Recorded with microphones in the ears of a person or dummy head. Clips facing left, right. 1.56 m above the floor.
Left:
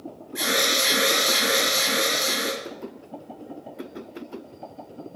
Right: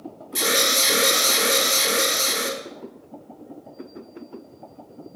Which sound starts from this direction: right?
An alarm, at 0.3 s.